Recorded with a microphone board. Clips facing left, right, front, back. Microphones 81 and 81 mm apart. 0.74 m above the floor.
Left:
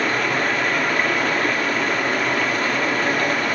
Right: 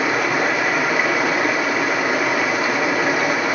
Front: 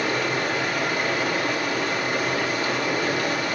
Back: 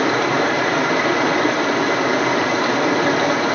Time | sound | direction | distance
0.0 | running water | 170° right | 1.3 m